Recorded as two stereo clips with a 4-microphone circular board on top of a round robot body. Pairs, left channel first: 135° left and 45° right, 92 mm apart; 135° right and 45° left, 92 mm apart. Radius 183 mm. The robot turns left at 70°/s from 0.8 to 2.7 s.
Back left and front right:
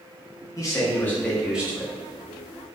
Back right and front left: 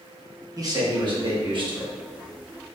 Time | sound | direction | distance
0.6 | a man speaking | 85° left | 1.6 m